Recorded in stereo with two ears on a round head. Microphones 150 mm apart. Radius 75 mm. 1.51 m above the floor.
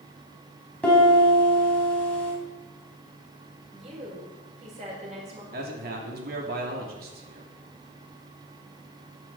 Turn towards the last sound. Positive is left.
turn(degrees=-60)  # may be behind; listen again after turning